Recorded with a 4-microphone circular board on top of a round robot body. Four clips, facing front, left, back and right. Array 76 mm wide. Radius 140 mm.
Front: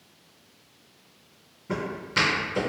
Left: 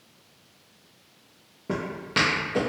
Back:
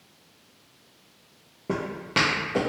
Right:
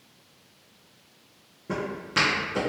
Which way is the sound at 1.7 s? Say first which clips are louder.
Even, back 1 dB; 165° left.